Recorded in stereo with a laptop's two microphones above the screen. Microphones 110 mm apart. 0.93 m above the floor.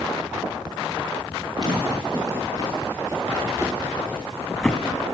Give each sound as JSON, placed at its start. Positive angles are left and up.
{"t": 1.6, "sound": "footsteps", "side_deg": -45, "distance_m": 5.0}